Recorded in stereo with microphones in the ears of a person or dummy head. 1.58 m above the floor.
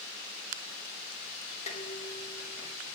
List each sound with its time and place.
1.7 s dishes clattering: 45° left (ahead or behind), 3.5 m